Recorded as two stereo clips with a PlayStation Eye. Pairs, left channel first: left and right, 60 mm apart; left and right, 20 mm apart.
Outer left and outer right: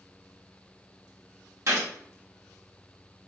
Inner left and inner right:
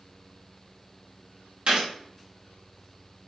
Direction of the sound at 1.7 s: 55° right (ahead or behind).